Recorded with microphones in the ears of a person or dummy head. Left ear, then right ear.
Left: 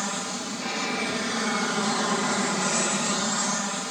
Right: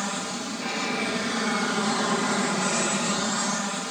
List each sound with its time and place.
0.0 s an aircraft: 5° left (ahead or behind)